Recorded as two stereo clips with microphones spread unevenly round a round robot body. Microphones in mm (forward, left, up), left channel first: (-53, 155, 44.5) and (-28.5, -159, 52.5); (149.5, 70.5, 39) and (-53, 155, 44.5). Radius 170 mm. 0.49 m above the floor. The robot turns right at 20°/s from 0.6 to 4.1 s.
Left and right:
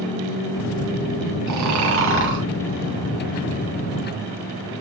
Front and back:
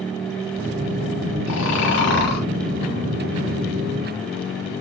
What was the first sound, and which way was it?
Snoring, 45° right.